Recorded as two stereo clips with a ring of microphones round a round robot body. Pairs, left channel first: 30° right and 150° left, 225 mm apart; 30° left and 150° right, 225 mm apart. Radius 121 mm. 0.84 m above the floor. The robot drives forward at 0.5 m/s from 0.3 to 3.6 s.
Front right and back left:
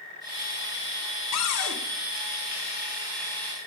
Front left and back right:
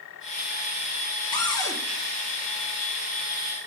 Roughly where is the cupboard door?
Ahead right.